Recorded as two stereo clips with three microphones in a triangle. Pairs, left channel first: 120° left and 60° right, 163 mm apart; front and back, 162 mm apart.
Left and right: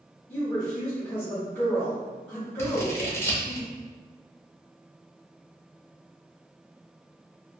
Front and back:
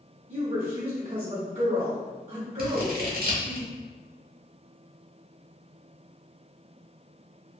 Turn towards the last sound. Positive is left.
turn(degrees=-170)